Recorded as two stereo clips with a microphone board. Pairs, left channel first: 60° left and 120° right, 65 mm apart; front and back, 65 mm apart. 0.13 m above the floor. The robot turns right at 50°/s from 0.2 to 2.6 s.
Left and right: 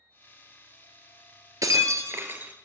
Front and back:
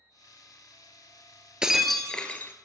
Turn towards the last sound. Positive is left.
turn(degrees=-55)